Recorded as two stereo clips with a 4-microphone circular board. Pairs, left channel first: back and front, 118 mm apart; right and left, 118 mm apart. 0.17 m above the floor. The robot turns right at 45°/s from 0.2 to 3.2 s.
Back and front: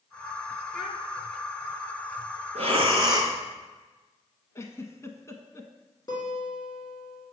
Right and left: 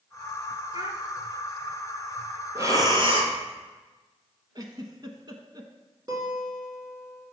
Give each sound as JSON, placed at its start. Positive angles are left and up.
{"t": 0.7, "sound": "a child speaking", "azimuth_deg": 90, "distance_m": 1.1}
{"t": 2.5, "sound": "breathing", "azimuth_deg": 25, "distance_m": 1.4}
{"t": 4.5, "sound": "a giggle", "azimuth_deg": 125, "distance_m": 0.7}
{"t": 6.1, "sound": "a guitar", "azimuth_deg": 135, "distance_m": 2.5}